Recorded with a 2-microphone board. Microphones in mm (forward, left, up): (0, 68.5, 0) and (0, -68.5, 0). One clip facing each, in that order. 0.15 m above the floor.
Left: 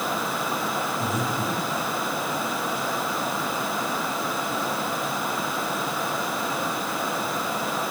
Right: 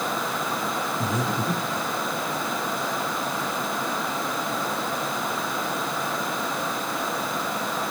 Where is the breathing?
35° right (ahead or behind), 4 m.